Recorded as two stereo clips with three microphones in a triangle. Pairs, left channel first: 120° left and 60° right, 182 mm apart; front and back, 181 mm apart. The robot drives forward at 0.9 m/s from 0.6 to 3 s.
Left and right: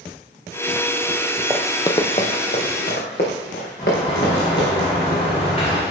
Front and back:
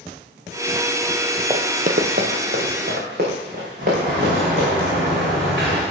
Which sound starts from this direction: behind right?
Running footsteps, at 1.5 s.